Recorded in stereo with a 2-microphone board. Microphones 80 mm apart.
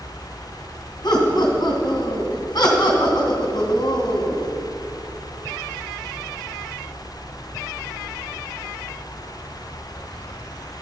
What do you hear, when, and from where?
1.0 s laughter: 60° left (ahead or behind), 3 m